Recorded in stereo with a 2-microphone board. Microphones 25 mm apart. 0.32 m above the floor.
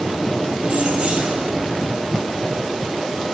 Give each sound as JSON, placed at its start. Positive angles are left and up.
{"t": 0.6, "sound": "keys jangling", "side_deg": -45, "distance_m": 1.3}